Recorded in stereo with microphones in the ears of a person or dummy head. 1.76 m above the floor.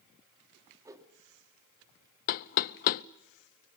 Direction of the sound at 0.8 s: 15° right (ahead or behind).